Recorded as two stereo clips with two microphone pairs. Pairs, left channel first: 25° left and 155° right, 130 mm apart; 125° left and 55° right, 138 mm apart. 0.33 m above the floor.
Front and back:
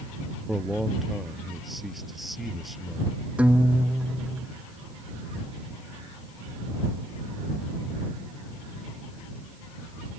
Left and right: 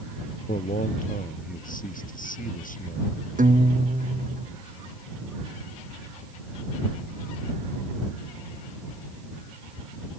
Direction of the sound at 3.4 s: 75° right.